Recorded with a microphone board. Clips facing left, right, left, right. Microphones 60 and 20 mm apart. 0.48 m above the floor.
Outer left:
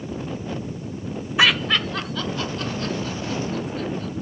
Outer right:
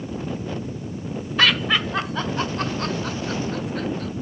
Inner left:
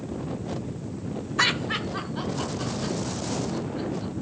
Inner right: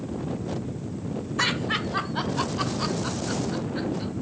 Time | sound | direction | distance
1.4 | laughter | 10° left (ahead or behind) | 0.7 m